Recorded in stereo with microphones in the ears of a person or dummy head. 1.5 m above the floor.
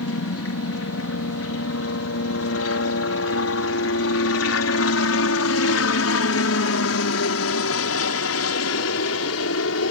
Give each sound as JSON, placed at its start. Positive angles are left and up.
{"t": 0.0, "sound": "a helicopter", "side_deg": 60}